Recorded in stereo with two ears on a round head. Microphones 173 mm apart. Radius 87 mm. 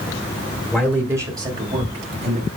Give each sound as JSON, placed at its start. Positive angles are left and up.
{"t": 0.7, "sound": "a man speaking", "side_deg": 0, "distance_m": 1.8}